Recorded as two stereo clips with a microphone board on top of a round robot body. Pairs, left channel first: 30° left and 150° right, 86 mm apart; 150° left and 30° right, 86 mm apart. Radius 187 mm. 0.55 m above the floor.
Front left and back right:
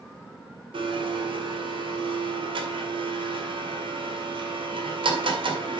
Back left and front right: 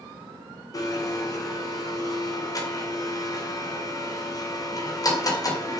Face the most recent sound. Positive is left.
turn(degrees=-165)